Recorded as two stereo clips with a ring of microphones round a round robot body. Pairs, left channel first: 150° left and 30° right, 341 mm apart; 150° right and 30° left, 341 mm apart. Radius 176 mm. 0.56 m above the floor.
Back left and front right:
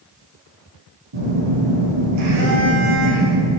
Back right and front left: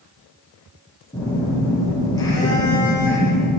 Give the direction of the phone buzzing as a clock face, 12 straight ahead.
2 o'clock.